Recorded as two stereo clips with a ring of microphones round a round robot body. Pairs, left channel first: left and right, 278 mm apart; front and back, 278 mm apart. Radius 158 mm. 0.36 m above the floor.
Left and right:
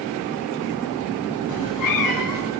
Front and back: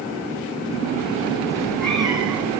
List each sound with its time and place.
1.5 s a cat meowing: 80° left, 1.3 m; by 2.5 s 95° left, 2.5 m